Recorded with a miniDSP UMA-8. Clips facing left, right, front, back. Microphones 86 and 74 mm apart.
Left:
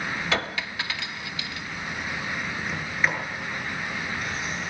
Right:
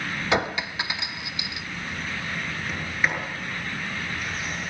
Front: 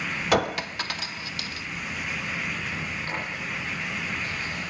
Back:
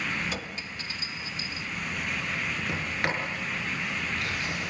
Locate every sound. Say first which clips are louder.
0.3 s a clink: right 7 dB, front 13 dB; 20° right, 0.5 m
2.7 s a sliding door: even, back 2 dB; straight behind, 7.5 m